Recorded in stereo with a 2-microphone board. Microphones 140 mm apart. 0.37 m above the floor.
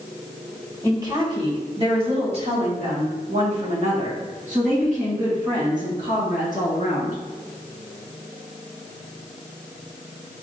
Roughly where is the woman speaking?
Right.